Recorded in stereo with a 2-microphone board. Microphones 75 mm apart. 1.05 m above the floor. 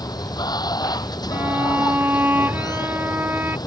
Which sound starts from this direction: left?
Running water, at 0.0 s.